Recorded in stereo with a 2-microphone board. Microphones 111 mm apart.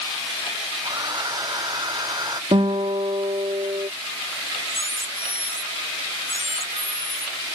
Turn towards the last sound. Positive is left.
turn(degrees=70)  # may be behind; listen again after turning